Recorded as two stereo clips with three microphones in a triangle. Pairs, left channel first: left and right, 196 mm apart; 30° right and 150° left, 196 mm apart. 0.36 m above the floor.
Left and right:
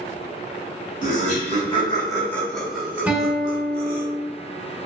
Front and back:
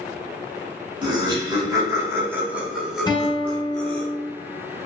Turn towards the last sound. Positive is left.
turn(degrees=-20)